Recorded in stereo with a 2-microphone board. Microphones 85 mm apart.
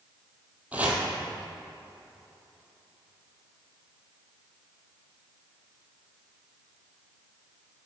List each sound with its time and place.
0.7 s chopping: 20° right (ahead or behind), 3.5 m